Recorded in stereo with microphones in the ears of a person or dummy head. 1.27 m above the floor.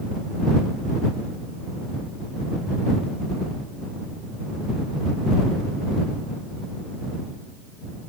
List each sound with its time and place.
Only background noise.